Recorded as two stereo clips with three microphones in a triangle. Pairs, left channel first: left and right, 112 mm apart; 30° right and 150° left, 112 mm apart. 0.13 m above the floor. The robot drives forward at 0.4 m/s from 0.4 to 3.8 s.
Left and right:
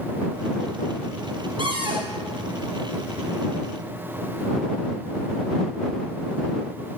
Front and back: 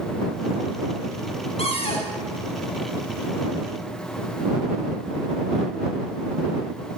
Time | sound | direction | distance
1.6 | a cupboard door | 50° right | 2.5 m